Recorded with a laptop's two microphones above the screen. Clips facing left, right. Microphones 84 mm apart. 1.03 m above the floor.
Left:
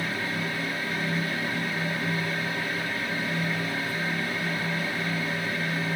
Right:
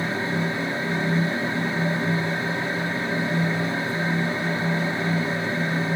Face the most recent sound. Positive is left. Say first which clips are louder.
# right 5 dB
turn(degrees=-25)  # may be behind; listen again after turning